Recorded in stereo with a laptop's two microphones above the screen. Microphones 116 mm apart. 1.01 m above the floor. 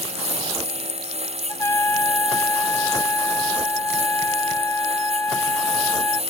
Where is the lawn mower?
65° right (ahead or behind); by 6.3 s 60° right (ahead or behind).